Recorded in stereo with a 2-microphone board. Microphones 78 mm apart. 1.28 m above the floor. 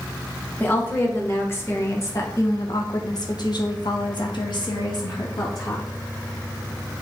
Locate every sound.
0.6 s a woman speaking: 20° left (ahead or behind), 2.0 m; by 5.8 s 50° left (ahead or behind), 1.4 m